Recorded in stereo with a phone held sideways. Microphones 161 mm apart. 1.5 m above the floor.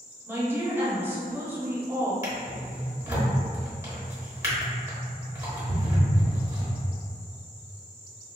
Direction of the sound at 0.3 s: 15° right (ahead or behind).